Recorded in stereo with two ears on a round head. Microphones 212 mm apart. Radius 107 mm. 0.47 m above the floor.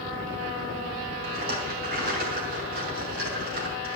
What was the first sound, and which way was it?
A rattle, 40° right (ahead or behind).